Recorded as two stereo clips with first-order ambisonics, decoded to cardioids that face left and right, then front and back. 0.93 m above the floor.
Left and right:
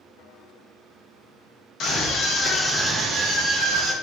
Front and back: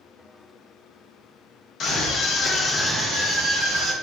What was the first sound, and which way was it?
A scream, 50° left.